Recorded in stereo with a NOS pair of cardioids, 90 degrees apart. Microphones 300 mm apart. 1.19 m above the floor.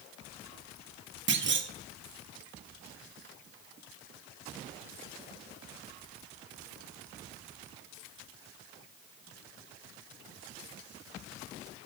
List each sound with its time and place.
1.3 s a clunk: 40° right, 1.4 m